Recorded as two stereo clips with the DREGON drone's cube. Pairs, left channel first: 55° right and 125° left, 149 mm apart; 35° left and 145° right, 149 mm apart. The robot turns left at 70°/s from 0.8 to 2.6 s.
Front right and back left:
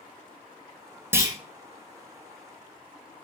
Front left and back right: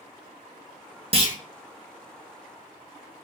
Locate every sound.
1.1 s a clunk: 165° right, 0.8 m; by 1.4 s 175° left, 0.8 m